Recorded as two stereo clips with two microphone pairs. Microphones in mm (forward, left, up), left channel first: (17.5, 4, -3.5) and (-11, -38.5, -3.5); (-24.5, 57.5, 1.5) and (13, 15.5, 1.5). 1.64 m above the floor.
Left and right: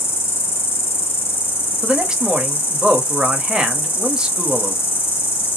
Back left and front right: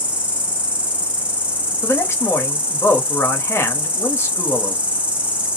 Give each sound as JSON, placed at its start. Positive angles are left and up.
{"t": 0.0, "sound": "an insect", "azimuth_deg": 20, "distance_m": 0.9}
{"t": 1.8, "sound": "a man speaking", "azimuth_deg": 165, "distance_m": 0.9}